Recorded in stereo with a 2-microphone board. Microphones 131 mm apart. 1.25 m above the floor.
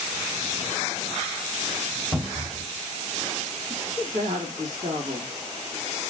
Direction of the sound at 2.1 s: 20° right (ahead or behind).